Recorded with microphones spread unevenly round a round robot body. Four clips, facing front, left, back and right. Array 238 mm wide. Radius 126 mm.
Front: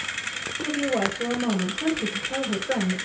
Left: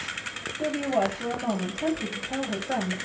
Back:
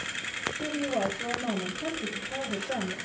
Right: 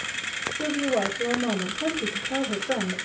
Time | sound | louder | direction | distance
0.6 | a woman speaking | even, front 5 dB | 35° right | 7 m